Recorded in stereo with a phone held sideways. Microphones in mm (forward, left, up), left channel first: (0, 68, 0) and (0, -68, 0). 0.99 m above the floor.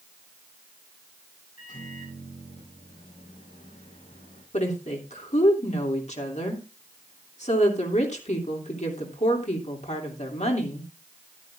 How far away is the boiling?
No boiling in this recording.